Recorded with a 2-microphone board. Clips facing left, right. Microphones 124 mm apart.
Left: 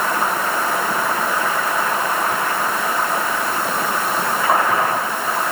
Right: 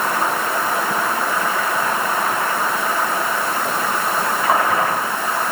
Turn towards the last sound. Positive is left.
No sound to turn to.